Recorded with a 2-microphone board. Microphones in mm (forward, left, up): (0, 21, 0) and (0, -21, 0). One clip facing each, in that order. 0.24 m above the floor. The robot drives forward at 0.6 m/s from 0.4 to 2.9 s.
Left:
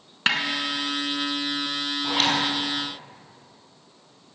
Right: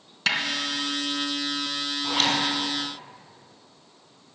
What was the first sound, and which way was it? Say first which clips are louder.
A snare drum: left 2 dB; 35° left (ahead or behind).